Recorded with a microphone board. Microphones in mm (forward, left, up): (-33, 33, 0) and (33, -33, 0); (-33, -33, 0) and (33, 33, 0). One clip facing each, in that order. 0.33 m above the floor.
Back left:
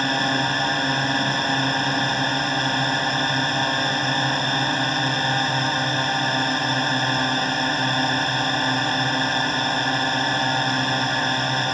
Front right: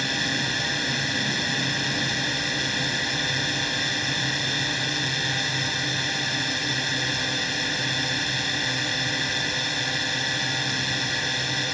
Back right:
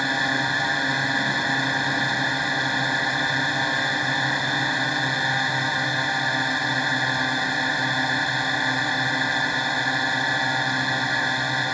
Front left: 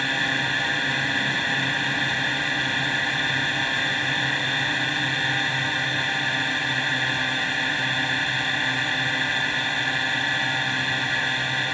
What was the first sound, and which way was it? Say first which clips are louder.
A drone: back left 7 dB, back right 2 dB; 160° left.